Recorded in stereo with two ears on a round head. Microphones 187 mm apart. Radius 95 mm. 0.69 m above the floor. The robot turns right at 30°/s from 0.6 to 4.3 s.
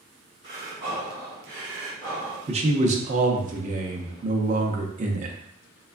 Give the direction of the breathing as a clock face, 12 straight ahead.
3 o'clock.